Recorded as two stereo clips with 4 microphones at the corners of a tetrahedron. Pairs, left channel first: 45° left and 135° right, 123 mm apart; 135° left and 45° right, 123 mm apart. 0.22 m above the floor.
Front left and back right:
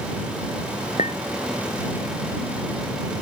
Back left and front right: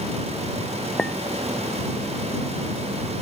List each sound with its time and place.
1.0 s a clink: 50° left